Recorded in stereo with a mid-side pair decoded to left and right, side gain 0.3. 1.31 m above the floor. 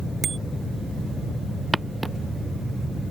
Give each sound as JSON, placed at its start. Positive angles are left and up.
{"t": 0.2, "sound": "a bicycle bell", "azimuth_deg": -60}
{"t": 1.7, "sound": "footsteps", "azimuth_deg": -15}